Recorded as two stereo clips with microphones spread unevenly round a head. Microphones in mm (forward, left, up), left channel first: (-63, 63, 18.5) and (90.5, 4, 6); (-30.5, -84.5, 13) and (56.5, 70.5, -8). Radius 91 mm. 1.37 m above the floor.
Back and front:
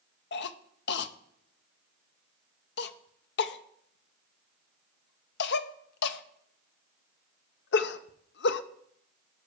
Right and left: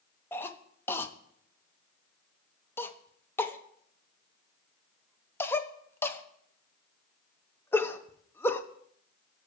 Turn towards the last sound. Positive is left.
turn(degrees=160)